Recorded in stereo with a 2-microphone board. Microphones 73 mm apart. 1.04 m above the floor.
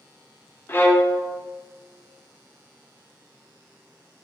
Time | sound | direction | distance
0.7 | a violin | 25° left (ahead or behind) | 0.7 m